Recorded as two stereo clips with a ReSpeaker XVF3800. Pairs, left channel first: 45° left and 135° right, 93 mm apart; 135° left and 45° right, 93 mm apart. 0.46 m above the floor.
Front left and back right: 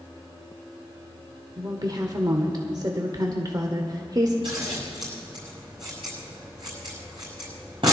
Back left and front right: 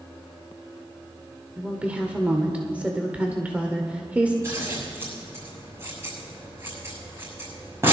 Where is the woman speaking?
115° right, 1.3 m.